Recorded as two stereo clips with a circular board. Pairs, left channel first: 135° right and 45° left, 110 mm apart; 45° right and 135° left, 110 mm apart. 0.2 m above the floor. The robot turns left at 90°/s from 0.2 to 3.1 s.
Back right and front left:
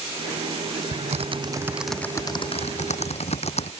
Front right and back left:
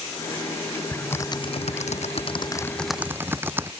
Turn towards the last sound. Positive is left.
turn(degrees=-155)